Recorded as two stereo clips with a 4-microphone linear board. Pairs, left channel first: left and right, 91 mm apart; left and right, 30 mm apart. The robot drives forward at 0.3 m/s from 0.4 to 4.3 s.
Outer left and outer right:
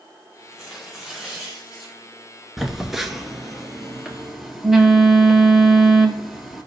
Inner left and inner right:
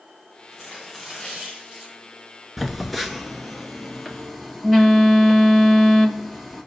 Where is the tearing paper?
5° right (ahead or behind), 4 m.